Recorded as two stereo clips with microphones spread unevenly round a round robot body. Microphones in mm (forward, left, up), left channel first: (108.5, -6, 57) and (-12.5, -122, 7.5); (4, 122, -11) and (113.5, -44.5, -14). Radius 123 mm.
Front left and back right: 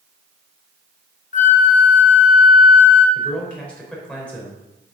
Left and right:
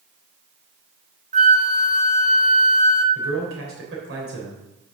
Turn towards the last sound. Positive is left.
turn(degrees=-40)